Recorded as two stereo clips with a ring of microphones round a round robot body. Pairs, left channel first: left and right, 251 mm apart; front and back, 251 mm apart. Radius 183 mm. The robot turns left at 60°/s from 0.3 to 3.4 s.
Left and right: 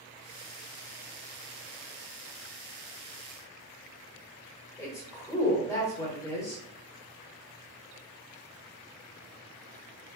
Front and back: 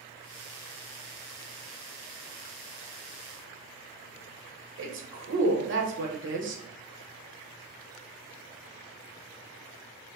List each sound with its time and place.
4.8 s a woman speaking: 165° left, 1.2 m